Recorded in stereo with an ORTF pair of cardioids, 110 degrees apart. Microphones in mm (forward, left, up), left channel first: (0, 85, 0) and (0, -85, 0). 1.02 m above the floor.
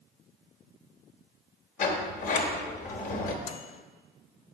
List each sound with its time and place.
1.8 s a sliding door: 50° left, 1.0 m
3.5 s a microwave: 40° left, 0.6 m